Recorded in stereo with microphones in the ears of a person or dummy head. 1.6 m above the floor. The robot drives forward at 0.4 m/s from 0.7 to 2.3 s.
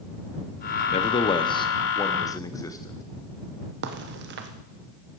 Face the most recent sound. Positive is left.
turn(degrees=-65)  # may be behind; listen again after turning